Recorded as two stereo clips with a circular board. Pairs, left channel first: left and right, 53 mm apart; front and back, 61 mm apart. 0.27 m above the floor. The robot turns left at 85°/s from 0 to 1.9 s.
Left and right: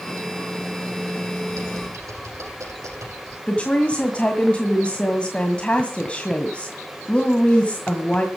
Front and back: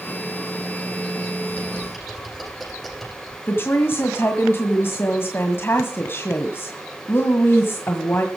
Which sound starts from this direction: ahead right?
Typing on a keyboard, at 1.5 s.